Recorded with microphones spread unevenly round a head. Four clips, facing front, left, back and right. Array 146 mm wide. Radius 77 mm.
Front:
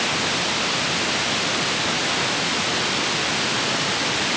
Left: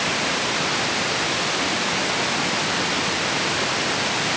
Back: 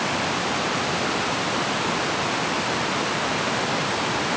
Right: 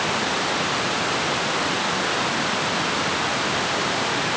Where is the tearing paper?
I don't hear tearing paper.